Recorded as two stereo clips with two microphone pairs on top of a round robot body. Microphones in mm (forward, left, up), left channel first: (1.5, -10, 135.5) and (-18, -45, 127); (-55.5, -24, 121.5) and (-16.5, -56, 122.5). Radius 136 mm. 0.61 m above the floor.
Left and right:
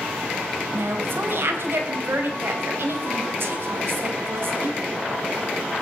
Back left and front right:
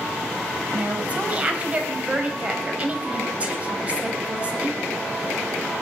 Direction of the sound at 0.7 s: 105° right.